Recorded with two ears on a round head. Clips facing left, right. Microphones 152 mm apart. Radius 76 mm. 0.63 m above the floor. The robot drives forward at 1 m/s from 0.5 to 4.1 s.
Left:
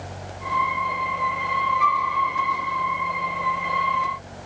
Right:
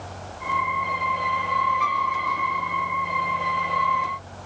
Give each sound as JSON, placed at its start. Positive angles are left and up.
{"t": 1.8, "sound": "a flute", "side_deg": -5, "distance_m": 2.0}